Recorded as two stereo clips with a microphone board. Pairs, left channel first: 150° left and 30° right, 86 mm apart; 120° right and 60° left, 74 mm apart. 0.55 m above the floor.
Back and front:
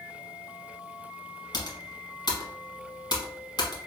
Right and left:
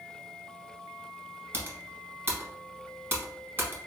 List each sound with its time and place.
1.5 s typing on a keyboard: 120° left, 1.0 m